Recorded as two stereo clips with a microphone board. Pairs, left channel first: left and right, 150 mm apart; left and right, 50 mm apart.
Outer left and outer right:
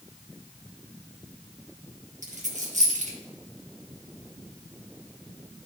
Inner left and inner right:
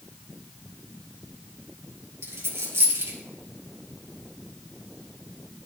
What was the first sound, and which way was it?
A dropped coin, 55° right (ahead or behind).